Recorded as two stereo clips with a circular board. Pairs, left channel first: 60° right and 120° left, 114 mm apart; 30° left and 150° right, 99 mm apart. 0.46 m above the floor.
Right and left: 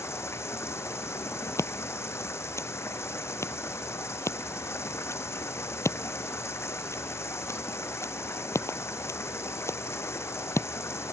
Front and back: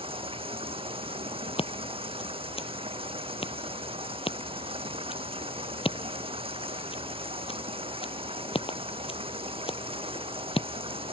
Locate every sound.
0.0 s running water: 125° right
1.6 s scissors: 5° left